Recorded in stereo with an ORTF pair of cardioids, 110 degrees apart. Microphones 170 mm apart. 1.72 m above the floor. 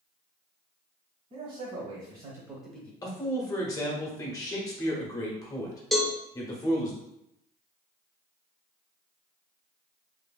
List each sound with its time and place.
1.3 s a man speaking: 55° right, 1.7 m; by 2.9 s 15° left, 1.0 m
3.0 s a man speaking: 20° left, 1.1 m
5.9 s a cowbell: straight ahead, 0.6 m